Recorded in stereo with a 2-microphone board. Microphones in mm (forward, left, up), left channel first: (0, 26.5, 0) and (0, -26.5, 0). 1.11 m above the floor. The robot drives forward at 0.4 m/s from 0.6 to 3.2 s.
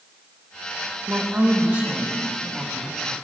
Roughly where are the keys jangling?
I don't hear keys jangling.